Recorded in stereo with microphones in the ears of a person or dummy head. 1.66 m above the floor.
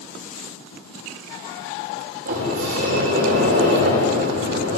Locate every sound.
2.2 s a sliding door: 45° right (ahead or behind), 6.5 m